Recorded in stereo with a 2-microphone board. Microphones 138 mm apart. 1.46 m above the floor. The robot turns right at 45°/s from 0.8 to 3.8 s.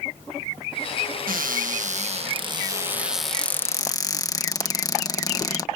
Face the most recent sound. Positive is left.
turn(degrees=25)